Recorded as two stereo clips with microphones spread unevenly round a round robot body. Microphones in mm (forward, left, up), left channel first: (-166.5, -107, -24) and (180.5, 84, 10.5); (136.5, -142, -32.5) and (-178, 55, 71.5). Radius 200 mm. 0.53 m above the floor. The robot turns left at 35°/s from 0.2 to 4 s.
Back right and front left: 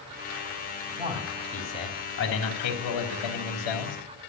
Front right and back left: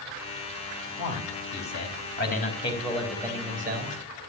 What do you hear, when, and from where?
1.0 s a man speaking: 45° right, 4 m; by 4.0 s 150° right, 4 m